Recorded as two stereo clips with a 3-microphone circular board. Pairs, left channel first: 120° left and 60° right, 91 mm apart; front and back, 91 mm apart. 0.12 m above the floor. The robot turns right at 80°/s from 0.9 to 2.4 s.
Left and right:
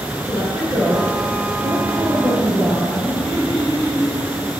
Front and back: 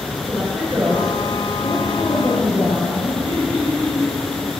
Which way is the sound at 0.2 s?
90° right.